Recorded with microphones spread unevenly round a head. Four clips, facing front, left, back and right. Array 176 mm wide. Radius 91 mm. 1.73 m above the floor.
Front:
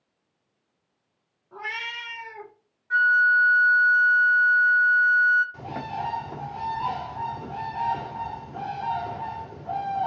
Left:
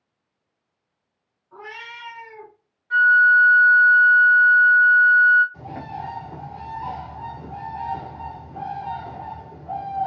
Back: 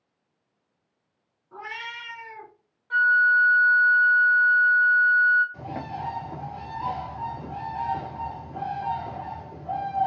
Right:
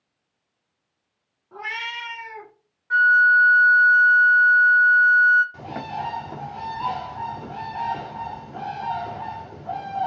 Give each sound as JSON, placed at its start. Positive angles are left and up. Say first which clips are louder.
{"t": 1.5, "sound": "a cat meowing", "louder": "right 5 dB, front 2 dB", "azimuth_deg": -35, "distance_m": 2.0}
{"t": 2.9, "sound": "a flute", "louder": "left 1 dB, even", "azimuth_deg": -5, "distance_m": 1.0}
{"t": 5.5, "sound": "a bird", "louder": "right 2 dB, front 1 dB", "azimuth_deg": -10, "distance_m": 1.8}